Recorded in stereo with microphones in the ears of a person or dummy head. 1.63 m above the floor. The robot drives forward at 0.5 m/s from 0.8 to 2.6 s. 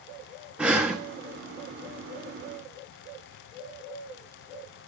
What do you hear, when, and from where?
0.6 s breathing: 5° right (ahead or behind), 0.6 m